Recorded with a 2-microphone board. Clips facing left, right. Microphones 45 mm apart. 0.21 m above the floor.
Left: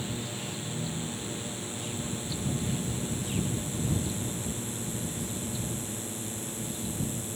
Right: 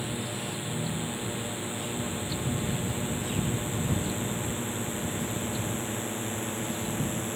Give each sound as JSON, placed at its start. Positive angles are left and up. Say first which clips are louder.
{"t": 0.0, "sound": "a drone", "louder": "right 2 dB", "side_deg": -20}